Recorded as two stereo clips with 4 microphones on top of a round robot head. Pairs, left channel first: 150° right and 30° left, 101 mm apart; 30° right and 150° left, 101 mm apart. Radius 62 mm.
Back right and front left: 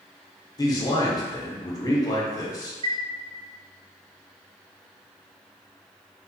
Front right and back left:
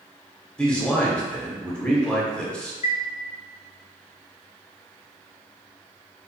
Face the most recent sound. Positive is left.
turn(degrees=-15)